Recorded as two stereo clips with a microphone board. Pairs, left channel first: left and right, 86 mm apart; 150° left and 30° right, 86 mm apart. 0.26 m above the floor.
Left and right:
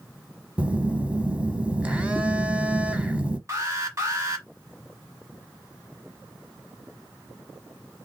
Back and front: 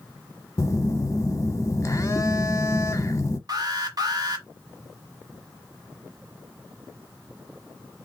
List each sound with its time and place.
0.6 s a phone buzzing: 165° right, 0.8 m
3.5 s an alarm: 45° right, 1.1 m